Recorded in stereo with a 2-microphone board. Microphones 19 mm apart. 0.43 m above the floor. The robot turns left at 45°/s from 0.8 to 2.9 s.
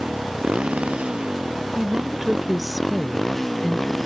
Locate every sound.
0.0 s a motorcycle: 95° right; by 4.1 s 170° left
1.8 s a woman speaking: 130° right; by 3.9 s straight behind